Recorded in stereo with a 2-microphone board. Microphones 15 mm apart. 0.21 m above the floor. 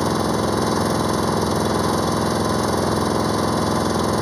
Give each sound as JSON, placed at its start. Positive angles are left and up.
{"t": 0.0, "sound": "an engine running", "side_deg": 10}